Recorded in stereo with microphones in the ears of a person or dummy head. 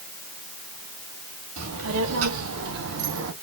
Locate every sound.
1.6 s a child speaking: 80° right, 1.9 m; by 3.3 s 65° right (ahead or behind), 1.0 m